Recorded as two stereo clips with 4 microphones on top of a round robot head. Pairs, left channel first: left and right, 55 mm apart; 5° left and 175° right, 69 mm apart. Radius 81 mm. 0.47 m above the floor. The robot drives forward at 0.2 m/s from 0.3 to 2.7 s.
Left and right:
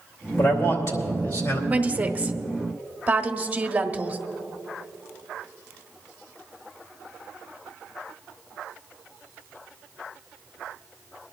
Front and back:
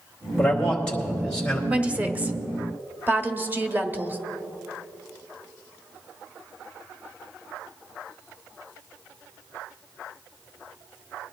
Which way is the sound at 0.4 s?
80° left.